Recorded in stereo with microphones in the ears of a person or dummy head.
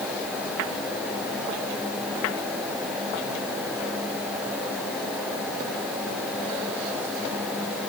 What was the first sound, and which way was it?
Only background noise.